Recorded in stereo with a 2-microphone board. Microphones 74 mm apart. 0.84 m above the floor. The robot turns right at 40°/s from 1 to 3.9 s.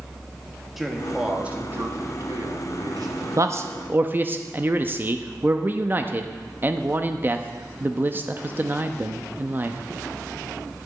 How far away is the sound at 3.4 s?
About 0.7 m.